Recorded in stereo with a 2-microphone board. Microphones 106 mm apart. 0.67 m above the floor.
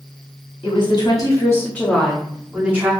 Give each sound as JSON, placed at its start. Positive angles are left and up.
{"t": 0.6, "sound": "a woman speaking", "side_deg": 50, "distance_m": 1.1}